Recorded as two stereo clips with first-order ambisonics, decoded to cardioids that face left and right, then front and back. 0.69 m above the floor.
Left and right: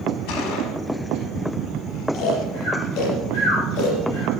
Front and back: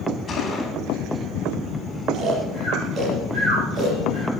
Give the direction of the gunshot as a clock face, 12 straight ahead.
10 o'clock.